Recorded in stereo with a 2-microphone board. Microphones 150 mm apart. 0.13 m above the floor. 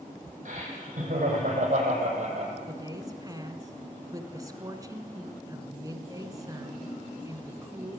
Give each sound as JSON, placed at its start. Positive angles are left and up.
{"t": 0.5, "sound": "laughter", "side_deg": -55, "distance_m": 6.5}
{"t": 2.7, "sound": "a woman speaking", "side_deg": -25, "distance_m": 1.3}